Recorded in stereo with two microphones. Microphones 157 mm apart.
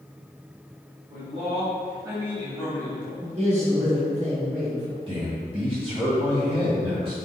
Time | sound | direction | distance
1.1 | a man speaking | 50° right (ahead or behind) | 1.6 m
3.2 | a man speaking | 45° right (ahead or behind) | 1.8 m
5.1 | a man speaking | 35° right (ahead or behind) | 1.9 m